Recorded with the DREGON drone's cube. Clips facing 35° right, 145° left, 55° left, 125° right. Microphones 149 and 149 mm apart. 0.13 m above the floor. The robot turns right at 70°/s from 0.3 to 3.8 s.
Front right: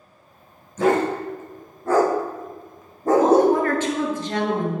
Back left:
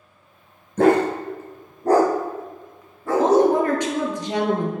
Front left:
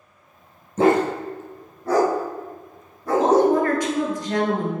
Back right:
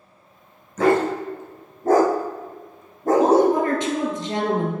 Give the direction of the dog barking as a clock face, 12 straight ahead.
8 o'clock.